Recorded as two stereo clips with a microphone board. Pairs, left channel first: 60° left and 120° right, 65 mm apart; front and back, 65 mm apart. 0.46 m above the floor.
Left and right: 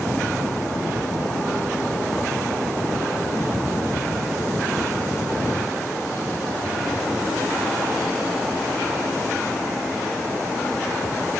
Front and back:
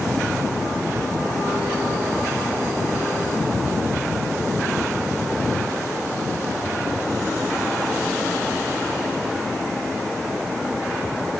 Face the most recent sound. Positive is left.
No sound to turn to.